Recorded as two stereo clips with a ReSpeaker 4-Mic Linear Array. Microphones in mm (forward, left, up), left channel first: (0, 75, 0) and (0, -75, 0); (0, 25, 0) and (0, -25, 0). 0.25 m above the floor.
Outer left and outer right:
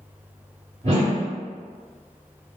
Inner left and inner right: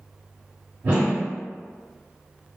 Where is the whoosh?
45° right (ahead or behind), 1.2 m.